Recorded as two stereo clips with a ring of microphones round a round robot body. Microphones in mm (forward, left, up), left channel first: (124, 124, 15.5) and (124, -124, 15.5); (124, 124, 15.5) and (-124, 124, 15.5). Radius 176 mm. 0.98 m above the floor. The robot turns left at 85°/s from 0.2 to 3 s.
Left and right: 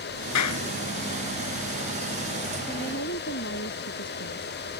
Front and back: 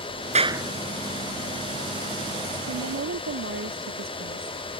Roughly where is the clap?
Behind left.